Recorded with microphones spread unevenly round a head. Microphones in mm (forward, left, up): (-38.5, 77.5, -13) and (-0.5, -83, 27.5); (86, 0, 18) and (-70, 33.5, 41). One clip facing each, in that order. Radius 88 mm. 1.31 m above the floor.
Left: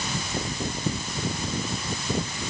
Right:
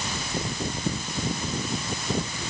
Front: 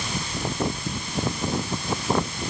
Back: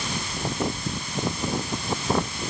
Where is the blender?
I don't hear a blender.